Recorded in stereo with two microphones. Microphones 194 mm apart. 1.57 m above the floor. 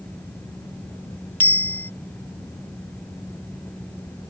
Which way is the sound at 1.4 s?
10° left (ahead or behind).